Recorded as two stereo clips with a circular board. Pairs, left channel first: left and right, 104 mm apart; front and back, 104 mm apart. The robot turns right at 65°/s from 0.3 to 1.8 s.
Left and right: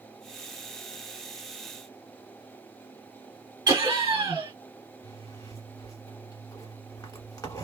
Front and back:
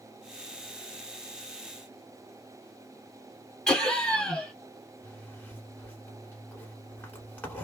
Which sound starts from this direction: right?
Laughter, at 3.7 s.